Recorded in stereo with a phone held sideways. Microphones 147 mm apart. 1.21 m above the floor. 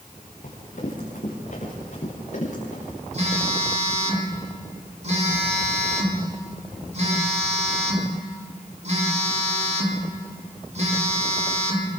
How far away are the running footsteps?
About 6.5 m.